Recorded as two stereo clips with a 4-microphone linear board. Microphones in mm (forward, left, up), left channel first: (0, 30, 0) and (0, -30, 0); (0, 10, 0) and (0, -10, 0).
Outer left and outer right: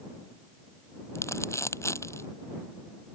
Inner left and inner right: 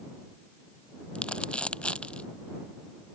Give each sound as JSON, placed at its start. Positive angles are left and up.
{"t": 1.1, "sound": "crumpling", "side_deg": 50}